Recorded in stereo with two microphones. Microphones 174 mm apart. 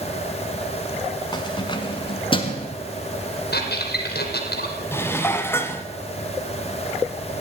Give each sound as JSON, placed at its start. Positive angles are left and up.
{"t": 1.3, "sound": "keys jangling", "side_deg": 25, "distance_m": 1.5}
{"t": 3.5, "sound": "a squeak", "side_deg": 85, "distance_m": 3.0}
{"t": 4.9, "sound": "dishes clattering", "side_deg": 15, "distance_m": 1.2}